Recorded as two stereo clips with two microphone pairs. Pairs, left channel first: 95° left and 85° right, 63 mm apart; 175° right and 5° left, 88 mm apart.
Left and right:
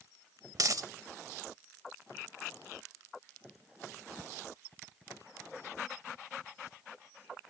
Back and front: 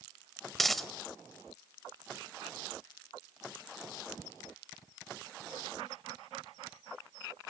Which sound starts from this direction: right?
A dropped coin, at 0.6 s.